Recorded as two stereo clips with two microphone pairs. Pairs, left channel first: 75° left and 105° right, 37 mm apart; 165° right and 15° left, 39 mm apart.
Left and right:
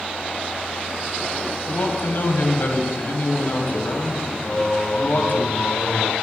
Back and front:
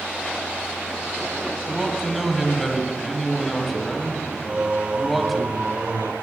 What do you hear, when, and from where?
1.7 s a man speaking: 105° left, 2.0 m
4.5 s singing: 35° left, 1.2 m